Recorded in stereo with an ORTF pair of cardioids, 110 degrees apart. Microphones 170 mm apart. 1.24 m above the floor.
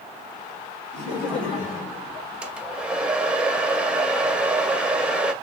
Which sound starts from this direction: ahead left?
Laughter, at 0.9 s.